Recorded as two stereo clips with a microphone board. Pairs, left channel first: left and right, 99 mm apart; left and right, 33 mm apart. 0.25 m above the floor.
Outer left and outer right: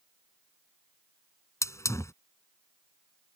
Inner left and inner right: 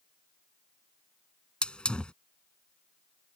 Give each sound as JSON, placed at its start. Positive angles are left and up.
{"t": 1.6, "sound": "a hiss", "side_deg": 25}